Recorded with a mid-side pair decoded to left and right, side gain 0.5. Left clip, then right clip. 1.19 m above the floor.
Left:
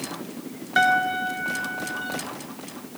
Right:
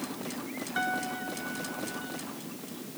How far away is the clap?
I don't hear a clap.